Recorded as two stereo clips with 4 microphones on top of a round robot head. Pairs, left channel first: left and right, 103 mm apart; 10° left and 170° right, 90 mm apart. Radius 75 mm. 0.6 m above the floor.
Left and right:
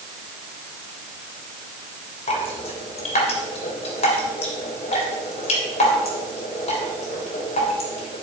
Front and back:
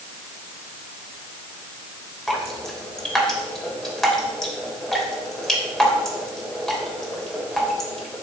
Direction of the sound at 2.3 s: 95° left.